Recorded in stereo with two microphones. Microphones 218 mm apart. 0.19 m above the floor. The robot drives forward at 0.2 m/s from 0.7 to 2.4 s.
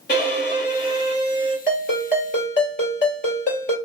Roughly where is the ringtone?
Left.